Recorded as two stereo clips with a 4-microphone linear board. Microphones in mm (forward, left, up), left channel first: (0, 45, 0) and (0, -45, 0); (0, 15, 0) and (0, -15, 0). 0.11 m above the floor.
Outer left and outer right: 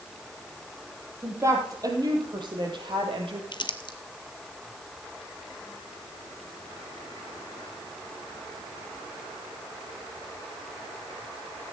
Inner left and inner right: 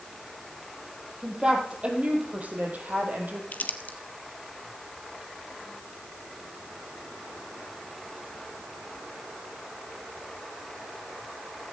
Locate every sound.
1.2 s a woman speaking: 30° right (ahead or behind), 3.5 m; by 3.4 s 70° right (ahead or behind), 3.5 m
3.5 s crumpling: 60° left (ahead or behind), 0.9 m